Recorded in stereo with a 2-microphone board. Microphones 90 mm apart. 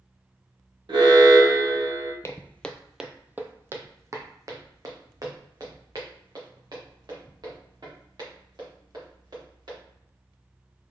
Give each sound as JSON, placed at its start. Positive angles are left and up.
{"t": 0.9, "sound": "an alarm", "side_deg": -65, "distance_m": 1.0}
{"t": 2.2, "sound": "footsteps", "side_deg": 30, "distance_m": 0.5}